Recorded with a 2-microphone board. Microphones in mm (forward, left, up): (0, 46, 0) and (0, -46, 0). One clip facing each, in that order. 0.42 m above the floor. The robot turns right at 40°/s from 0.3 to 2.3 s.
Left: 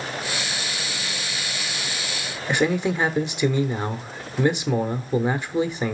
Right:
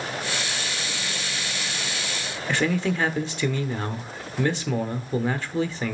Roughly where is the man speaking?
Centre.